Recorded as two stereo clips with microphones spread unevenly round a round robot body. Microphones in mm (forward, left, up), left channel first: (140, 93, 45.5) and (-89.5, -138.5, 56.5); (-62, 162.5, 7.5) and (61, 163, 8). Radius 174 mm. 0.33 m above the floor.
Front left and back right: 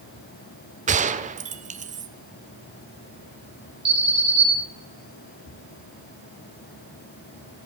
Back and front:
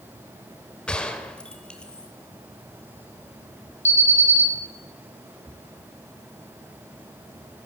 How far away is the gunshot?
About 0.9 m.